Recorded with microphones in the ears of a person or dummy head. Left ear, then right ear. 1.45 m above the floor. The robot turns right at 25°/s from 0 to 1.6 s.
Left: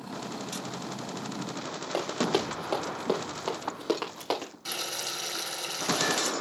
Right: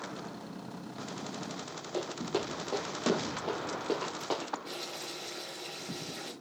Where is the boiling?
55° left (ahead or behind), 4.5 m.